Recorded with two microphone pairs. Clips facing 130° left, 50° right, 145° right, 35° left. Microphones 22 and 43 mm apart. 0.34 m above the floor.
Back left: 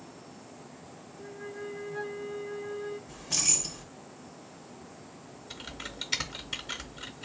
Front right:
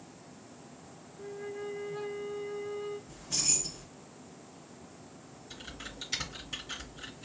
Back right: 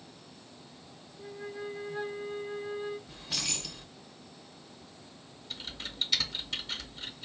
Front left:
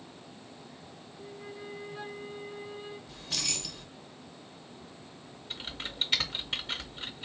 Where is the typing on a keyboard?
80° left, 0.9 m.